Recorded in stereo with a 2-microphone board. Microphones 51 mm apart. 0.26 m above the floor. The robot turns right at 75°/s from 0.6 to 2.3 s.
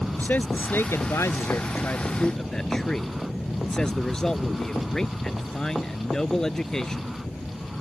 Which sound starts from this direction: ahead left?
A man speaking, at 0.2 s.